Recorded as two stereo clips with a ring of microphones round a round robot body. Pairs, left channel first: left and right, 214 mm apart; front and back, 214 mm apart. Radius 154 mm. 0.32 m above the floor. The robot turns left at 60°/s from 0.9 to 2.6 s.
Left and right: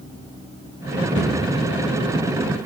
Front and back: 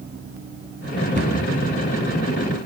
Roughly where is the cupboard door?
Behind left.